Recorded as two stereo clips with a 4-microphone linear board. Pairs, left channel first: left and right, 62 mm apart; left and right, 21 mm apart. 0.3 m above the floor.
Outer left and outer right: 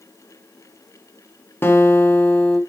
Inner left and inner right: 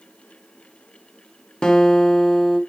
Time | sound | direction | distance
1.6 | a guitar | 35° left (ahead or behind) | 2 m